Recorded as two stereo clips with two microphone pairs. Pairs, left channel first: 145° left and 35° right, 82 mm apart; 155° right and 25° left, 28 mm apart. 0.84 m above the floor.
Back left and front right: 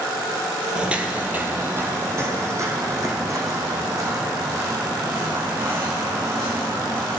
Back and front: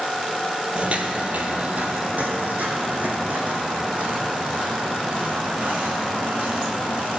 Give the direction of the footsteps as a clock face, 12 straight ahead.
11 o'clock.